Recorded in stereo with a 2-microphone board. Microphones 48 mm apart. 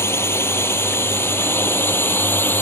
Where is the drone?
70° left (ahead or behind); by 2.6 s 55° left (ahead or behind).